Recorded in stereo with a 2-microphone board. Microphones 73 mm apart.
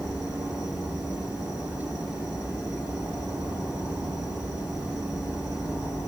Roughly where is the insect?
Left.